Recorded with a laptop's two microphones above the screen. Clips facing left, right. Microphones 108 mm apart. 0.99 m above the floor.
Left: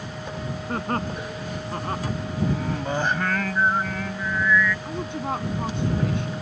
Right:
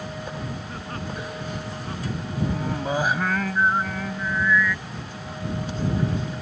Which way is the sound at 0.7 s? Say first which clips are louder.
Left 6 dB; 55° left (ahead or behind).